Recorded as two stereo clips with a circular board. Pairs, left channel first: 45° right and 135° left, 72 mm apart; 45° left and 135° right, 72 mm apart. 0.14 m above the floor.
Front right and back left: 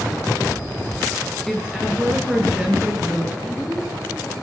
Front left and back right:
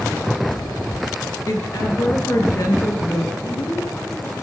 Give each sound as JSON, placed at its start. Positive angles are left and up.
{"t": 1.5, "sound": "a woman speaking", "azimuth_deg": 40, "distance_m": 2.5}
{"t": 3.4, "sound": "a woman speaking", "azimuth_deg": 45, "distance_m": 4.0}